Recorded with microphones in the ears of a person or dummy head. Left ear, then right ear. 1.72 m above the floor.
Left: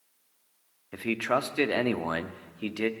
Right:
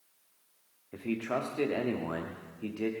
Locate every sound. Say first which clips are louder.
0.9 s a man speaking: left 6 dB; 85° left, 0.7 m